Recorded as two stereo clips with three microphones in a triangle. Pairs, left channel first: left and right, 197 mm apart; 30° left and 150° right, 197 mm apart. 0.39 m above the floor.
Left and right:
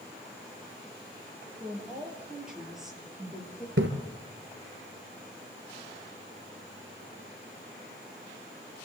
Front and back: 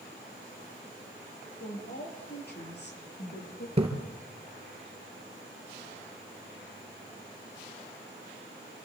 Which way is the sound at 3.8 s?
90° right.